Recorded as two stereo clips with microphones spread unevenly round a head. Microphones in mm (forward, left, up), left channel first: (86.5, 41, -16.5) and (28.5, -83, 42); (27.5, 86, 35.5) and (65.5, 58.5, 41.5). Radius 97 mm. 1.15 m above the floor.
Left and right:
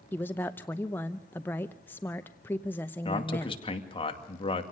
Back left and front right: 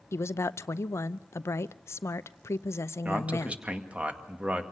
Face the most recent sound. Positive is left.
turn(degrees=25)